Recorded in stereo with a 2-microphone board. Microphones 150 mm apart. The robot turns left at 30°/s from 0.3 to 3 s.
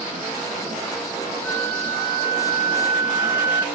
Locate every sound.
1.4 s a flute: straight behind, 3 m; by 3.6 s 135° left, 3 m